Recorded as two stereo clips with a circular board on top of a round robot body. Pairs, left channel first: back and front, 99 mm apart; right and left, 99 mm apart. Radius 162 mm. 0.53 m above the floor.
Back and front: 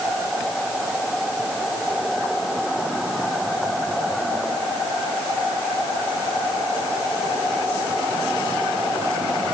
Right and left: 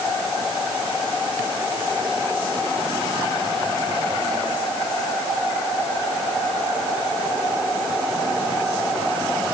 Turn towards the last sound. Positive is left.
No sound to turn to.